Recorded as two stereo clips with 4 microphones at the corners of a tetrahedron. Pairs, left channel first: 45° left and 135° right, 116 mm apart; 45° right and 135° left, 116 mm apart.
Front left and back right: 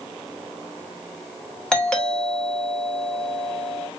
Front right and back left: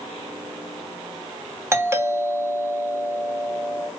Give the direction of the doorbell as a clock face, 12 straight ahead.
8 o'clock.